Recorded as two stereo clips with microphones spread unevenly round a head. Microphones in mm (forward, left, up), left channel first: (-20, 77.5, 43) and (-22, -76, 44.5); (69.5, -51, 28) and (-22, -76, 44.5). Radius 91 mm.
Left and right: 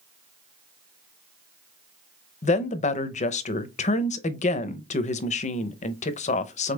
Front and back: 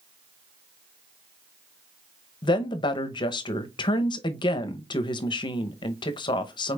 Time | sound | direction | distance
2.4 | a woman speaking | 50° left | 0.6 m